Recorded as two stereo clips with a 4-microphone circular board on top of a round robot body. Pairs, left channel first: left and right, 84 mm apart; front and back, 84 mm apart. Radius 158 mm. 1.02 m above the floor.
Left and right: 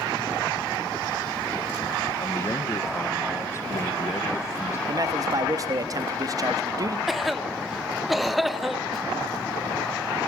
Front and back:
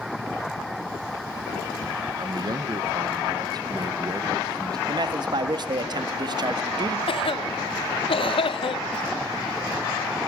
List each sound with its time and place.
2.2 s a man speaking: 140° left, 1.3 m
4.9 s a man speaking: 140° right, 1.5 m
7.1 s a cough: straight ahead, 1.2 m